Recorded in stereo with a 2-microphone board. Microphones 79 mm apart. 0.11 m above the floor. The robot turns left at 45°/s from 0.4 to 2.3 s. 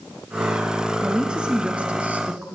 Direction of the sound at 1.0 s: 10° right (ahead or behind).